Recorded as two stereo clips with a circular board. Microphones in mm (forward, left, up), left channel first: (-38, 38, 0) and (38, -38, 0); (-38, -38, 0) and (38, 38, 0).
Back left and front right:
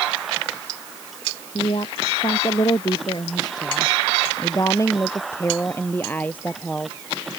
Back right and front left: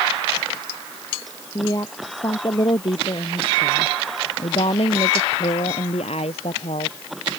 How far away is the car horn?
No car horn in this recording.